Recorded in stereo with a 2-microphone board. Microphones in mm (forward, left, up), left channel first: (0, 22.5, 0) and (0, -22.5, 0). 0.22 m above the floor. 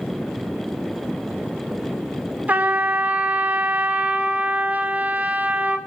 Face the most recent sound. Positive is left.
turn(degrees=-40)  # may be behind; listen again after turning